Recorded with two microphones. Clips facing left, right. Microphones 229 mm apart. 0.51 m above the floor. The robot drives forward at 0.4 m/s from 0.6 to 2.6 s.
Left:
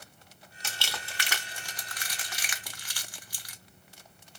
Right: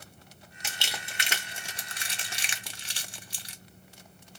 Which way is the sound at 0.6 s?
15° right (ahead or behind).